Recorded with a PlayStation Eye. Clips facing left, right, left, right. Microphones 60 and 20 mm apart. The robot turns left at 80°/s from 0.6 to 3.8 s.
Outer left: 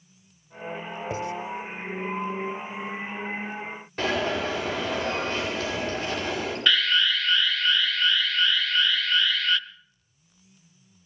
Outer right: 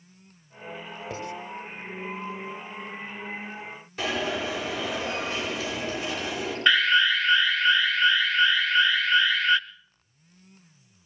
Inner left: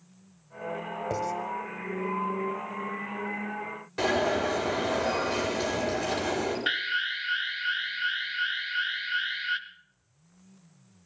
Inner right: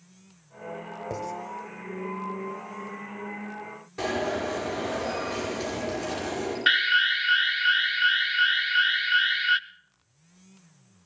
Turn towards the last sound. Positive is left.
turn(degrees=-20)  # may be behind; listen again after turning